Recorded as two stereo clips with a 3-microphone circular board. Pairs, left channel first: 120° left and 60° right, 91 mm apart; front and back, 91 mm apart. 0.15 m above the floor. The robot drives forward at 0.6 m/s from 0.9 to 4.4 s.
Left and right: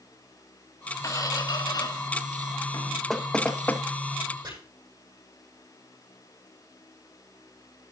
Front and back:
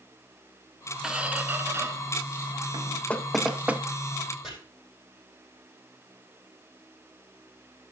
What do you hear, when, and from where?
1.0 s a squeak: 100° left, 1.0 m; by 3.6 s 160° left, 1.9 m
3.1 s knocking: 40° left, 0.7 m; by 3.8 s 150° left, 0.7 m
4.4 s chopping: 95° right, 8 m